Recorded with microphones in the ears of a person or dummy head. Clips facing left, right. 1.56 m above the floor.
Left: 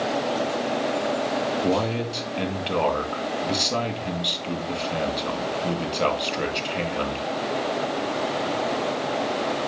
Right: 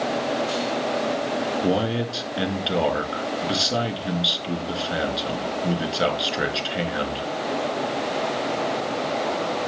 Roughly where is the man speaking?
Centre.